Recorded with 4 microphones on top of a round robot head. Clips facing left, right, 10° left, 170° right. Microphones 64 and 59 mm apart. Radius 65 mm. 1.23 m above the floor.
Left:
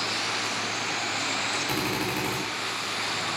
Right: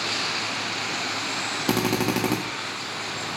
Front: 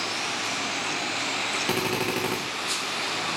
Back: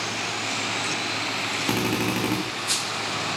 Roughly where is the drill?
Right.